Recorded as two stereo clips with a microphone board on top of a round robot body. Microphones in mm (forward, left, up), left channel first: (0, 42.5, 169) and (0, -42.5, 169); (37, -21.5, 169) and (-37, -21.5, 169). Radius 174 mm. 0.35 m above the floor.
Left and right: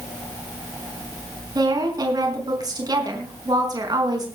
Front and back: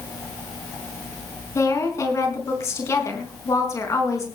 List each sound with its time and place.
1.6 s a woman speaking: 50° right, 4.5 m